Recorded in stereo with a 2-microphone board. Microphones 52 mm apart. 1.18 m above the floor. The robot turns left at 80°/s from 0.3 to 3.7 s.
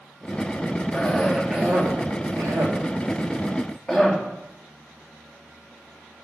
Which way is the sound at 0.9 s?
30° left (ahead or behind).